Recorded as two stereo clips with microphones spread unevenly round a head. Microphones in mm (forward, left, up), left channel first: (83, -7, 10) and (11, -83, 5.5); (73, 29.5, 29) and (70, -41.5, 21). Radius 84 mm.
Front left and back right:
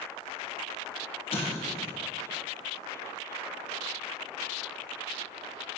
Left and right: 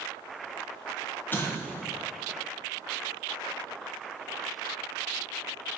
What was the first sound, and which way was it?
An explosion, 30° left.